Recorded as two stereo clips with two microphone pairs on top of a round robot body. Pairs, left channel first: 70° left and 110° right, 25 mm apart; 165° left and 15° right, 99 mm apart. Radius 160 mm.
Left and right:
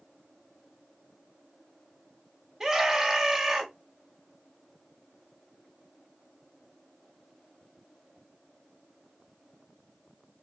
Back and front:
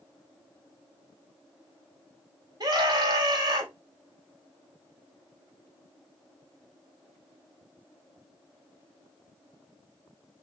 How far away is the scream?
About 2 m.